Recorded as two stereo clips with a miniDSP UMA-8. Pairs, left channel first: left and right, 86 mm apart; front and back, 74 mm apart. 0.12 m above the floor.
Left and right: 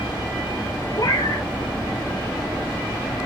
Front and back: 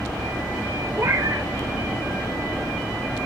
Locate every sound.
1.0 s a cat meowing: 130° left, 1.0 m